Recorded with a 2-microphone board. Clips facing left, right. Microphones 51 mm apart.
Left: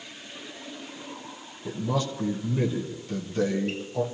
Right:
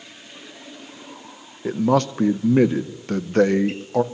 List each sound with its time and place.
1.6 s a man speaking: 65° right (ahead or behind), 0.6 m